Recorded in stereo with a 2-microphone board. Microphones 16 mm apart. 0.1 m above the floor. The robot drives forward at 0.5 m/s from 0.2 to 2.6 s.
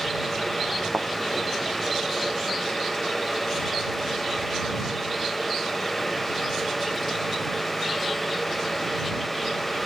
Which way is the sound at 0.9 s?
70° right (ahead or behind).